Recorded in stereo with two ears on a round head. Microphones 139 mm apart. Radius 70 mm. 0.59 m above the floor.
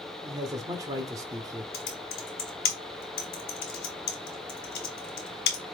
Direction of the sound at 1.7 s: 70° left (ahead or behind).